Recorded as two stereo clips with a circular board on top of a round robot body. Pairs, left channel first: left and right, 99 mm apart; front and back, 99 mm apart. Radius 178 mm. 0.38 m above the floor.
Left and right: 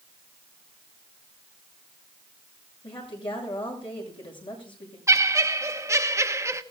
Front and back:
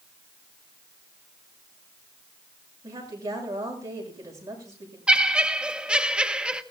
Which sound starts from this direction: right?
Laughter, at 5.1 s.